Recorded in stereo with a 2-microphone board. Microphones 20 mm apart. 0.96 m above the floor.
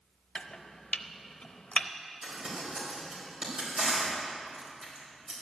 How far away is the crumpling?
About 4.5 m.